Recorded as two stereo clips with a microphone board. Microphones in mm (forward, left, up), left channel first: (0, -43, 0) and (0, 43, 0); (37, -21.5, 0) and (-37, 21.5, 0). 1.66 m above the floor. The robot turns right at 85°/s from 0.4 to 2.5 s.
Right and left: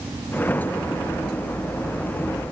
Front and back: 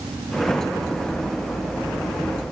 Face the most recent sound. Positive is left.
No sound to turn to.